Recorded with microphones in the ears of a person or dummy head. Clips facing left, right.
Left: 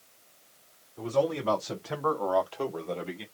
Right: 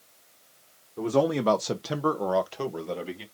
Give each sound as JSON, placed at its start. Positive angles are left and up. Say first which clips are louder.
{"t": 1.0, "sound": "a man speaking", "louder": "right 4 dB", "side_deg": -55, "distance_m": 1.4}